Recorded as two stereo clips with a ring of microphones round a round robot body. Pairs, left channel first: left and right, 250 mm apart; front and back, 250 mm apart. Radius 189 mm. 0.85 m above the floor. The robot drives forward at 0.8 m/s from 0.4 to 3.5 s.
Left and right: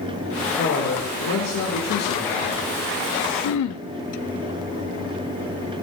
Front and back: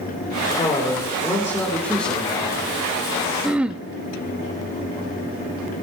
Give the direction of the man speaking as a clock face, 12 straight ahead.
10 o'clock.